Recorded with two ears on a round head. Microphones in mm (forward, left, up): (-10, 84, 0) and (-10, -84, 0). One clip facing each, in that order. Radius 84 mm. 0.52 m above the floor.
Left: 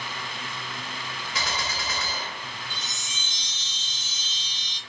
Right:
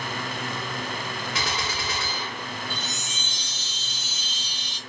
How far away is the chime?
About 1.6 m.